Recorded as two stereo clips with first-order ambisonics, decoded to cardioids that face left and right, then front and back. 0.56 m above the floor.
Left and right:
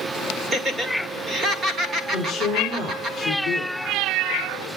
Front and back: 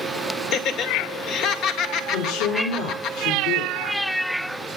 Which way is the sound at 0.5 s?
30° right.